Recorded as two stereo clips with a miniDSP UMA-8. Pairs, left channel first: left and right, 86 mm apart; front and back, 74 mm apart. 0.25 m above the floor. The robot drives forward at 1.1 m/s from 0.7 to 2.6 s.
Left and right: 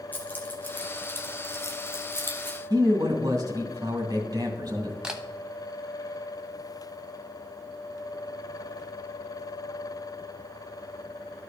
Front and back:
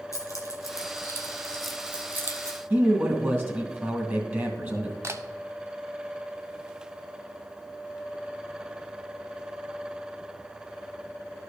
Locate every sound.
0.1 s keys jangling: 25° left, 1.5 m; by 2.6 s 150° left, 1.4 m
2.7 s a man speaking: 120° right, 2.5 m
5.0 s a camera shutter: 165° right, 0.9 m